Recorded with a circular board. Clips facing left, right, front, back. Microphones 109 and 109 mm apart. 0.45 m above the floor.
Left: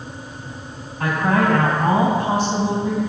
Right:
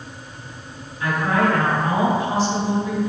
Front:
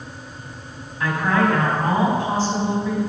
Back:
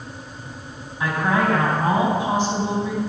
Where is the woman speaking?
110° left, 2.5 m.